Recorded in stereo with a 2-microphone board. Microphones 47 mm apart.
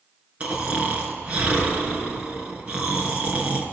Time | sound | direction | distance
0.4 | snoring | 30° right (ahead or behind) | 3 m